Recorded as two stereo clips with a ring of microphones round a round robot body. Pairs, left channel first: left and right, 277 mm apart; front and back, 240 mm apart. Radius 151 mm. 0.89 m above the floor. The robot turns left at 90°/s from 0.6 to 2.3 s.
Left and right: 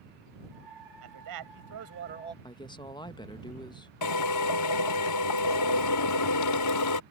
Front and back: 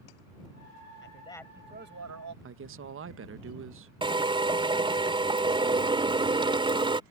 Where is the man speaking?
50° right; by 2.3 s 165° right.